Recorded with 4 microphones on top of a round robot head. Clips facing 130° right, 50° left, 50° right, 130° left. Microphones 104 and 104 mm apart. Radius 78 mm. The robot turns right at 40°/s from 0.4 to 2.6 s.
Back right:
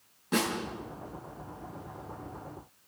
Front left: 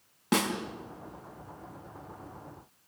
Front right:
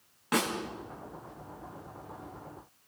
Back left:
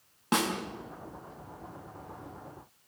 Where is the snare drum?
65° left, 5 m; by 0.5 s 70° left, 5 m.